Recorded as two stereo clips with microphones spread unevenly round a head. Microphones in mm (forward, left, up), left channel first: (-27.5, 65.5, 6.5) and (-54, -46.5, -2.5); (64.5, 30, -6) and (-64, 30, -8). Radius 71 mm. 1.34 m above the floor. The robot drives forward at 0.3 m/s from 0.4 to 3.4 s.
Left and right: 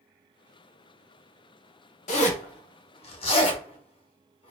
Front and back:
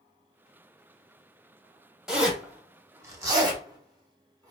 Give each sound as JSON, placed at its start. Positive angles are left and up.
{"t": 2.1, "sound": "a zipper", "azimuth_deg": 95, "distance_m": 1.0}